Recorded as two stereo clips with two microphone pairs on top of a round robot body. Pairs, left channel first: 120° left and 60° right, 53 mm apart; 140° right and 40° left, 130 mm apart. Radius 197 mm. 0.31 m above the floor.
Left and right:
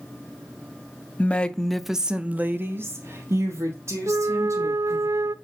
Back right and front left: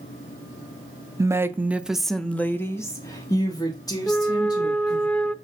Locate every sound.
1.2 s a woman speaking: 85° left, 1.0 m; by 5.1 s 80° right, 2.5 m
4.1 s a flute: 55° right, 0.5 m